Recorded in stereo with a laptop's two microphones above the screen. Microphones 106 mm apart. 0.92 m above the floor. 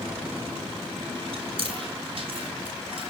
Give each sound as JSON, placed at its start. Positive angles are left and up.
{"t": 1.3, "sound": "chewing", "side_deg": -55, "distance_m": 3.0}